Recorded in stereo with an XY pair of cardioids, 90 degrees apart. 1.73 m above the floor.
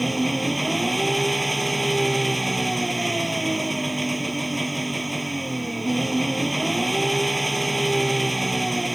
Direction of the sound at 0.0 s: 10° right.